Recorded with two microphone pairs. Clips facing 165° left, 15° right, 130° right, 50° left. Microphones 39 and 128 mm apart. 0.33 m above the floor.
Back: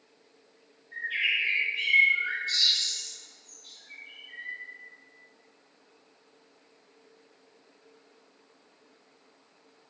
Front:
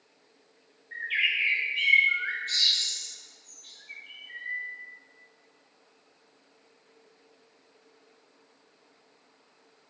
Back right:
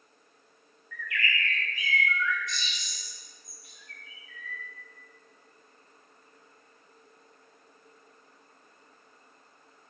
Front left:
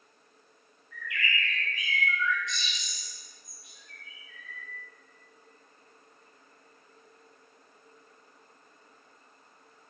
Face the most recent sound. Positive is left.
turn(degrees=-15)